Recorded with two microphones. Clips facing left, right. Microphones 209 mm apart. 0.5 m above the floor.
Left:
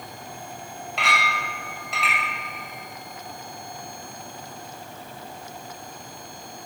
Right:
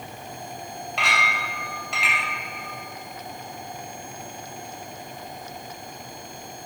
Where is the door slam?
I don't hear a door slam.